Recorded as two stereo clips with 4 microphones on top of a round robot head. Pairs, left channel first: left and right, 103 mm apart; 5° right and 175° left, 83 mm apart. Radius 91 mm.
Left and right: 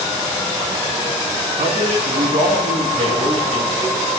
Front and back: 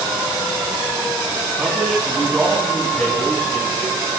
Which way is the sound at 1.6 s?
90° right.